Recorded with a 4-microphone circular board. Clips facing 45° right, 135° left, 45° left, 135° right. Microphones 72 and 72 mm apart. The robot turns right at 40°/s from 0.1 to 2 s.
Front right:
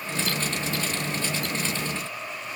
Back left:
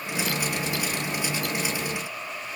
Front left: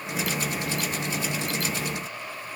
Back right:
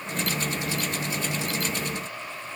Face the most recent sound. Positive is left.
No sound to turn to.